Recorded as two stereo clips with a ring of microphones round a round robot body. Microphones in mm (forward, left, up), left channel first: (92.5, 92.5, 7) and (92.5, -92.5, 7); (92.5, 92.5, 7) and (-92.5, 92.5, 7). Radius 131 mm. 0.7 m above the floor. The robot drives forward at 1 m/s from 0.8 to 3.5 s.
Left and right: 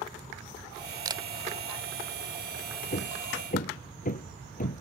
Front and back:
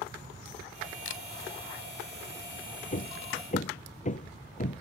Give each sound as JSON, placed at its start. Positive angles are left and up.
{"t": 1.1, "sound": "a camera shutter", "azimuth_deg": -20}
{"t": 2.9, "sound": "hammering", "azimuth_deg": 45}